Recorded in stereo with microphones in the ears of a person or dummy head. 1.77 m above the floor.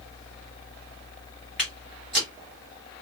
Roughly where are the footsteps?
Centre.